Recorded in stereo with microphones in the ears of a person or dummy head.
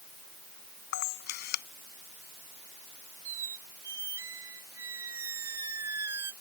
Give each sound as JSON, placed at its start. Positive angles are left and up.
{"t": 0.9, "sound": "a camera shutter", "side_deg": 55}
{"t": 3.2, "sound": "a squeak", "side_deg": -15}